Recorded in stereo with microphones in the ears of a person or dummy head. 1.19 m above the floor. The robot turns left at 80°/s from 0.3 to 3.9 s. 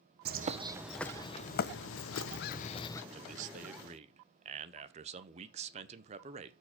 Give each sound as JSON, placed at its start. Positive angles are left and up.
{"t": 0.2, "sound": "a bird", "azimuth_deg": -130, "distance_m": 0.6}
{"t": 3.1, "sound": "a man speaking", "azimuth_deg": -60, "distance_m": 0.7}